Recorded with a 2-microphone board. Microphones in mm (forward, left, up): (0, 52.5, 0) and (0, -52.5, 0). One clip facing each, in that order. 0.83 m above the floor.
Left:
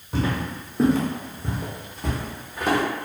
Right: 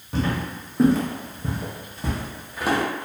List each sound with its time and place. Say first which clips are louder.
0.1 s footsteps: even; centre (ahead or behind), 1.0 m; by 2.8 s 5° right (ahead or behind), 1.2 m